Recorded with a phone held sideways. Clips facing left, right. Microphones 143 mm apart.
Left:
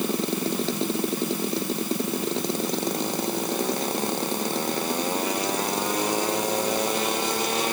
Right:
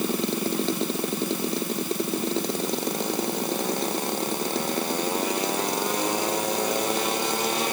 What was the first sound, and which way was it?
Only background noise.